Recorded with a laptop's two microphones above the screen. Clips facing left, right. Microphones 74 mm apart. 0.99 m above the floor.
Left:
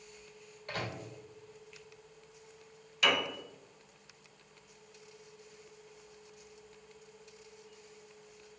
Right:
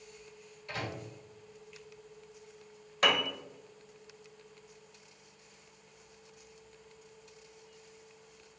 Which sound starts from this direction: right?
A piano, at 3.0 s.